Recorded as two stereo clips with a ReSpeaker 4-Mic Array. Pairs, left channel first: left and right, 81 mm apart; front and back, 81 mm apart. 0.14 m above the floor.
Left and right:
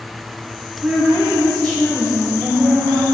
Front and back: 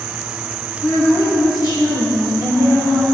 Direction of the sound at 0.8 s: 10° right.